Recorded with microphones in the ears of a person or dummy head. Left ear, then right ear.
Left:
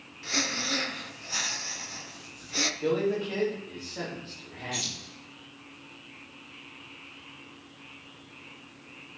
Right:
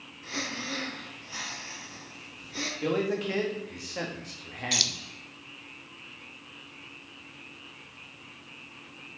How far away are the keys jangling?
About 1.2 m.